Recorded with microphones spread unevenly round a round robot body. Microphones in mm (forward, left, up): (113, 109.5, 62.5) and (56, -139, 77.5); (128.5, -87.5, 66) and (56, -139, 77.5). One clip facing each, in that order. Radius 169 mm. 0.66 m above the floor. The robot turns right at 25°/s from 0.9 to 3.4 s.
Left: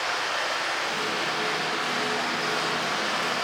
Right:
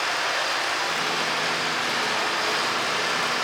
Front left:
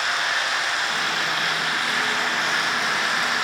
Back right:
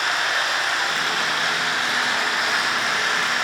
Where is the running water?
100° right, 1.9 m; by 3.4 s 35° right, 1.9 m.